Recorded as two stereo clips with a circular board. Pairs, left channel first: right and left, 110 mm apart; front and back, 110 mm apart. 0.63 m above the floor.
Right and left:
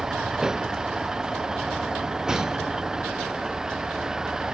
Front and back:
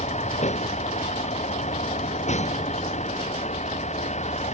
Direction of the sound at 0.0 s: 5° left.